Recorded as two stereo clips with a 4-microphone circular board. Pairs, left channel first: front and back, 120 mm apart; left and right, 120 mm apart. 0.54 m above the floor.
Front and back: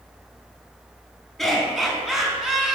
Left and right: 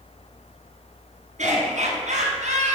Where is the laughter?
90° right, 4.5 m; by 2.8 s 95° right, 5 m.